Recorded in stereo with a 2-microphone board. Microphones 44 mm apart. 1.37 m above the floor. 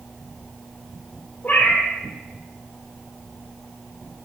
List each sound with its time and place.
1.4 s a cat meowing: 40° left (ahead or behind), 1.7 m